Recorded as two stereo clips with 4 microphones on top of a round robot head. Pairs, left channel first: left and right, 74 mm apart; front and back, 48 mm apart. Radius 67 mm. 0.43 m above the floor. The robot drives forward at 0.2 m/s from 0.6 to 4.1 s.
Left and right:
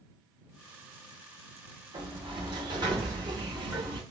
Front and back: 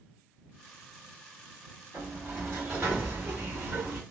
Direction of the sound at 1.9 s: 115° right.